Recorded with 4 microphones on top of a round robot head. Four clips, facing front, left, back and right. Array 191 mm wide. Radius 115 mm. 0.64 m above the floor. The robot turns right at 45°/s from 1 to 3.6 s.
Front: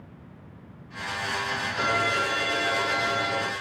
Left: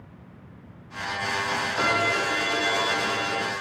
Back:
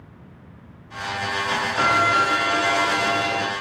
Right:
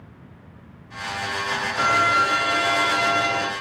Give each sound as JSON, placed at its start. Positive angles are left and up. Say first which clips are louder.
{"t": 1.8, "sound": "a violin", "louder": "right 6 dB, back 7 dB", "azimuth_deg": 160, "distance_m": 1.7}